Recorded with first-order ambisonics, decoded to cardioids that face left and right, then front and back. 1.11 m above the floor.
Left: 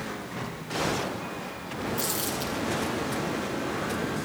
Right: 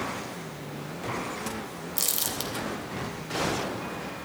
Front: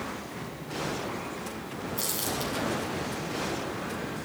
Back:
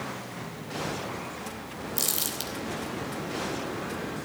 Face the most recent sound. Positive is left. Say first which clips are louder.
# right 2 dB, back 1 dB
turn(degrees=-135)